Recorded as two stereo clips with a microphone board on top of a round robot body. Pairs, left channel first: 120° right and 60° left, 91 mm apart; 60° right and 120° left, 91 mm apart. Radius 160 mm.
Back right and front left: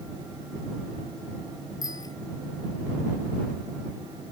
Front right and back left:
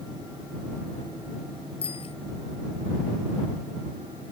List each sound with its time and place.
1.8 s a bicycle bell: 70° right